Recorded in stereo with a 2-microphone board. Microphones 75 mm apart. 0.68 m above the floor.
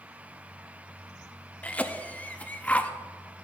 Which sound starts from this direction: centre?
A cough, at 1.6 s.